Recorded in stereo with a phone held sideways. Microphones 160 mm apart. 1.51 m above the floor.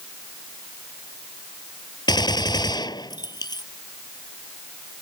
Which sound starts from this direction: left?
A gunshot, at 2.1 s.